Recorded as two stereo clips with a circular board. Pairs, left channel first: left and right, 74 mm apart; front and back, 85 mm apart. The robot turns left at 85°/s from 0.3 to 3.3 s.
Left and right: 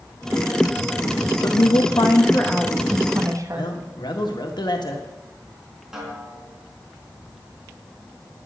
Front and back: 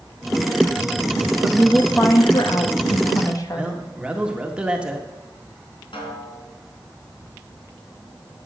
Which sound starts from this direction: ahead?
A snare drum, at 5.9 s.